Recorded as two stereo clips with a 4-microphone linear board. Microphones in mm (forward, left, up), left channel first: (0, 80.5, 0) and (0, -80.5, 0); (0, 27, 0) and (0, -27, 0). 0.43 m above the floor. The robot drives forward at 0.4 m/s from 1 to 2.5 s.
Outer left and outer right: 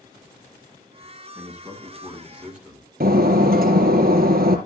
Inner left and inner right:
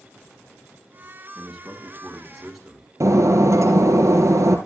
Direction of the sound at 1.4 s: 10° right (ahead or behind).